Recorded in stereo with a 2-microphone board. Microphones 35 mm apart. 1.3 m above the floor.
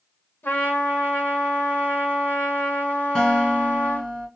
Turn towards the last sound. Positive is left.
turn(degrees=10)  # may be behind; listen again after turning